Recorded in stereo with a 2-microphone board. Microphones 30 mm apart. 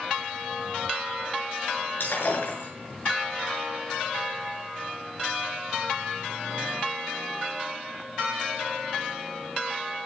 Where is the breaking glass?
85° left, 7 m.